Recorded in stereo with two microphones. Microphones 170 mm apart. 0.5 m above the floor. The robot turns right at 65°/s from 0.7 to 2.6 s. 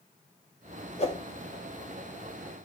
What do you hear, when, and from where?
1.0 s a whoosh: 40° left (ahead or behind), 2.0 m; by 1.2 s 25° left (ahead or behind), 2.0 m